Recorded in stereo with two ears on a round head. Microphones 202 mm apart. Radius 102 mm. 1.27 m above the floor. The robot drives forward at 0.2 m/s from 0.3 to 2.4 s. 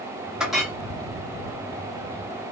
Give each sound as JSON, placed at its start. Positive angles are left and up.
{"t": 0.4, "sound": "a clink", "side_deg": 0, "distance_m": 1.7}